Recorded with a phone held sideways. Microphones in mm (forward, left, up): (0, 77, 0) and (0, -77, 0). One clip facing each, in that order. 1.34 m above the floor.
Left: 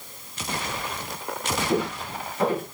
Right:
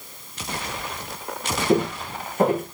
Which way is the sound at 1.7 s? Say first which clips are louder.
Right 7 dB; 45° right (ahead or behind).